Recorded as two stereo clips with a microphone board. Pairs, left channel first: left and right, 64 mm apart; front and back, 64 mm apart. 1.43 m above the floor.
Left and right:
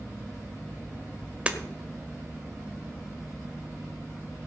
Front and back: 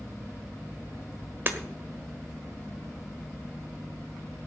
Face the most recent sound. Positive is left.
turn(degrees=-150)